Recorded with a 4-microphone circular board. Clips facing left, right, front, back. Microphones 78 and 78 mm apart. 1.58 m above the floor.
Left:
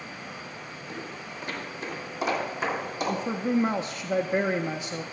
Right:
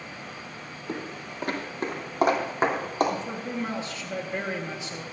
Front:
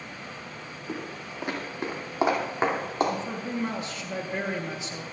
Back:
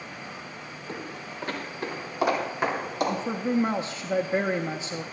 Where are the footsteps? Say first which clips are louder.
Right 5 dB, front 1 dB; 80° right, 2.5 m; by 3.2 s 55° right, 3.5 m.